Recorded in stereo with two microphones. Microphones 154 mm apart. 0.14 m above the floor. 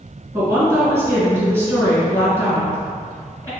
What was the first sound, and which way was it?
A woman speaking, 15° right (ahead or behind).